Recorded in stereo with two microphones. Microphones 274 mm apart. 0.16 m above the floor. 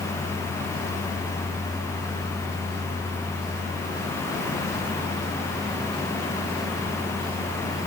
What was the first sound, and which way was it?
Only background noise.